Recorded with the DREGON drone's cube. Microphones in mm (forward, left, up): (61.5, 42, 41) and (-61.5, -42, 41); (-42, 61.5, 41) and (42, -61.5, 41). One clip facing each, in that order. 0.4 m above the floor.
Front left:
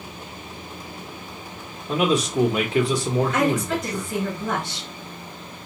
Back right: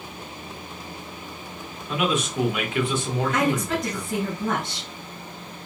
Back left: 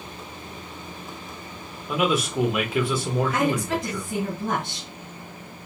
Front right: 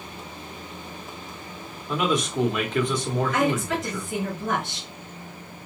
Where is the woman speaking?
165° left, 3.5 m.